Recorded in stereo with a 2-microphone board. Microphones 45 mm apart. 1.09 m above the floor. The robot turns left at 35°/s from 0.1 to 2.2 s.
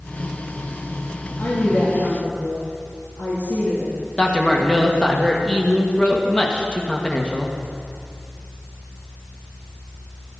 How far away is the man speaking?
About 1.7 m.